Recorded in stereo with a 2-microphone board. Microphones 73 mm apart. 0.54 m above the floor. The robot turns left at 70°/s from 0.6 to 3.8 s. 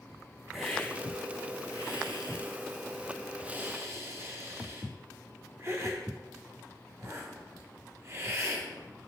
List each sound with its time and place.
0.5 s a hiss: centre (ahead or behind), 3 m; by 8.7 s 45° right (ahead or behind), 3 m